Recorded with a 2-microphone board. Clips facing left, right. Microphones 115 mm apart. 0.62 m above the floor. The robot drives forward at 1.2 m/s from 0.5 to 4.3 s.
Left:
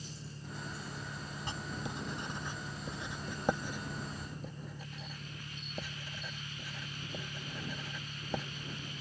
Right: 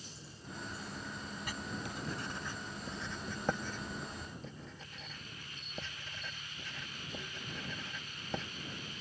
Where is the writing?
30° left (ahead or behind); by 8.4 s 10° left (ahead or behind).